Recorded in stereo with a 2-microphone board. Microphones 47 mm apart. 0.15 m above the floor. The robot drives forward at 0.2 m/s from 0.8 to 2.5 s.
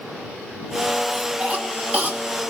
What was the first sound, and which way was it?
A cough, 30° right (ahead or behind).